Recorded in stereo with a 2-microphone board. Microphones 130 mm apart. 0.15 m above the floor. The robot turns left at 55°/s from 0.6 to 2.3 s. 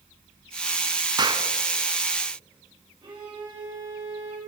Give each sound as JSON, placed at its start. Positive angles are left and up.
{"t": 1.2, "sound": "a clap", "side_deg": -35, "distance_m": 1.0}
{"t": 3.0, "sound": "a violin", "side_deg": -40, "distance_m": 3.5}